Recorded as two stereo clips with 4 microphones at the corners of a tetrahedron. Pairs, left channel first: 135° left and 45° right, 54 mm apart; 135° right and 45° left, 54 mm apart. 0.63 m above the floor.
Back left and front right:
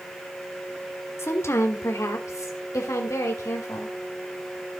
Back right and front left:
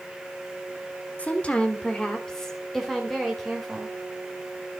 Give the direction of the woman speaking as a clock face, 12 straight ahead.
7 o'clock.